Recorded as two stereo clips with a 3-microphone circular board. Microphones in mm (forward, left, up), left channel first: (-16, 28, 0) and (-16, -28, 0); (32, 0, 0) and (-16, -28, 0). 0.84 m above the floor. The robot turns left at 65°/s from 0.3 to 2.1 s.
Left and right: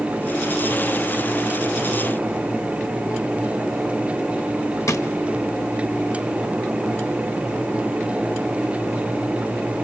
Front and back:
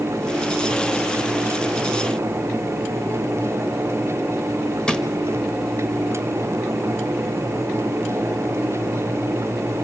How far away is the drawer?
About 1.2 m.